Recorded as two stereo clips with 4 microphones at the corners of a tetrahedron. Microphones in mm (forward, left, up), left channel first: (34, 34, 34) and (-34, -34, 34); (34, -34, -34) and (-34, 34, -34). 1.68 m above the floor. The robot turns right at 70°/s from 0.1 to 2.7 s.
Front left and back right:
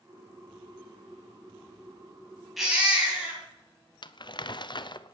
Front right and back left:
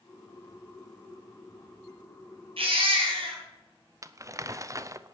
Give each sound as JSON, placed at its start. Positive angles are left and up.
{"t": 2.6, "sound": "a baby crying", "azimuth_deg": 135, "distance_m": 4.5}
{"t": 4.0, "sound": "crumpling", "azimuth_deg": 80, "distance_m": 0.6}